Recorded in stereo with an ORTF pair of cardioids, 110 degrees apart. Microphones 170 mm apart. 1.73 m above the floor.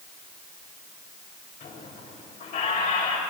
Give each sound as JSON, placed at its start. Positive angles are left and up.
{"t": 1.6, "sound": "a squeak", "azimuth_deg": 45, "distance_m": 3.5}